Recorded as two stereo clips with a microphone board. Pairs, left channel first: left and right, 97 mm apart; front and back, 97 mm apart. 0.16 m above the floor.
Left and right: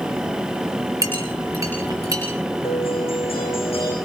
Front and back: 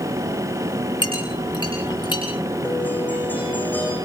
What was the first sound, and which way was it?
A clink, 35° right.